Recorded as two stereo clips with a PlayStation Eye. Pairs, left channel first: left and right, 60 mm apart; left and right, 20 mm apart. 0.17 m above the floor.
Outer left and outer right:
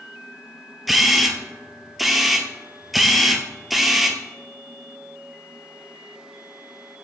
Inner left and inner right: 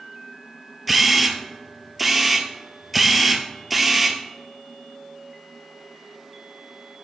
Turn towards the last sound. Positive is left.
turn(degrees=-5)  # may be behind; listen again after turning